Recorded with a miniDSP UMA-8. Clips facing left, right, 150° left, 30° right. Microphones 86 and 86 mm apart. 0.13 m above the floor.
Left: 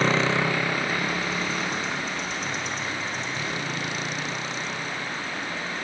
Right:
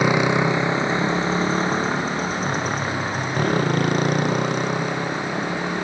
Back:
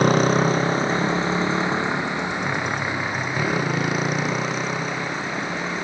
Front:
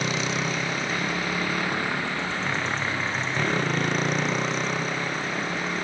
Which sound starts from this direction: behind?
A motorcycle, at 0.0 s.